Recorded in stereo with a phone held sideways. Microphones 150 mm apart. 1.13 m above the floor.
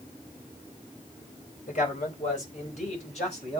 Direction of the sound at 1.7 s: 60° left (ahead or behind).